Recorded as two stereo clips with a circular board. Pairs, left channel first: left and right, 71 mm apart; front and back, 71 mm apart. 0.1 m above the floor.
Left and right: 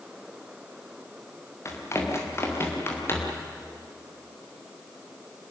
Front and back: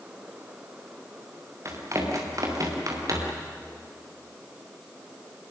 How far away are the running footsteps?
About 5.5 m.